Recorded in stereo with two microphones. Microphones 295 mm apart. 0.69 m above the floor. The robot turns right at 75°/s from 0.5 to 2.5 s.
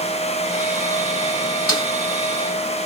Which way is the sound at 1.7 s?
60° left (ahead or behind).